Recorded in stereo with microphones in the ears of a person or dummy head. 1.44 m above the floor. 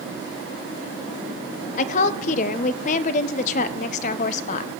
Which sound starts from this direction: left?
A woman speaking, at 1.8 s.